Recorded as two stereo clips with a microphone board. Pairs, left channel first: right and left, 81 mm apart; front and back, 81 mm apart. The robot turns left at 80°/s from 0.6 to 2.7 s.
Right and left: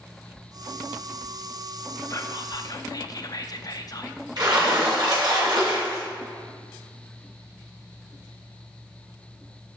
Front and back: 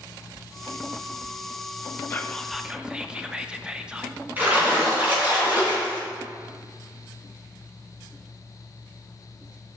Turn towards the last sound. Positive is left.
turn(degrees=115)